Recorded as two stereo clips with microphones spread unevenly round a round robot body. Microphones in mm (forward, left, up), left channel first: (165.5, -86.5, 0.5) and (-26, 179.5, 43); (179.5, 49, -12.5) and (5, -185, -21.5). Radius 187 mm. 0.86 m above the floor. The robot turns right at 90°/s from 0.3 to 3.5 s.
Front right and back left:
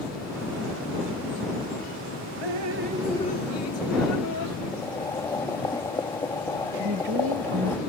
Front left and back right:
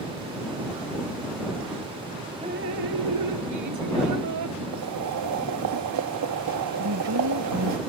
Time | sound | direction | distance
2.4 | dripping | 155° left | ?
4.7 | boiling | 135° right | ?
6.8 | a woman speaking | 175° right | ?